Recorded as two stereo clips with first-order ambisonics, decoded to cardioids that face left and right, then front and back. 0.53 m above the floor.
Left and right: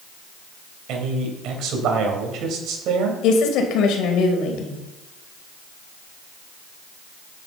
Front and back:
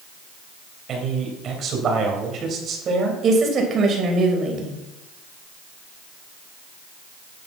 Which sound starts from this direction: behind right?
A man speaking, at 0.9 s.